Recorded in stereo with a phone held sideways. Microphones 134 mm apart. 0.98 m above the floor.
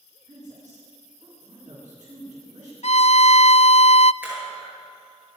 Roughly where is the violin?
Left.